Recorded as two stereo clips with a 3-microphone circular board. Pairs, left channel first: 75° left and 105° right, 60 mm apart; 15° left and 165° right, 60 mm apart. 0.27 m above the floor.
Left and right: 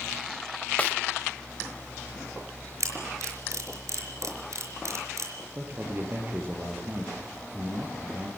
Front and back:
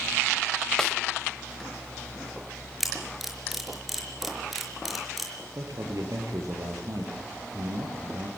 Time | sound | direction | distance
0.8 | a snare drum | 80° left | 1.4 m
2.8 | a camera shutter | 80° right | 5 m
5.5 | a man speaking | 155° right | 6 m